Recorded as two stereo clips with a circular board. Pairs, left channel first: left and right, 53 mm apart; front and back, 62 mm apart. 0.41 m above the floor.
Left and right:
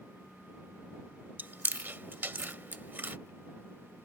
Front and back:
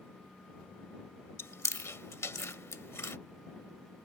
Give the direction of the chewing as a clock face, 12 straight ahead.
1 o'clock.